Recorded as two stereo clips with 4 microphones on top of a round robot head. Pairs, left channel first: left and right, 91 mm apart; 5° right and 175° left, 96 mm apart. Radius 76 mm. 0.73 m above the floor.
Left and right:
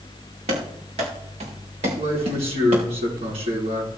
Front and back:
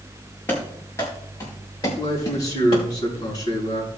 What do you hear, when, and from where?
0.5 s running footsteps: 80° right, 5 m; by 2.9 s 55° right, 5 m
2.0 s a man speaking: 60° right, 7 m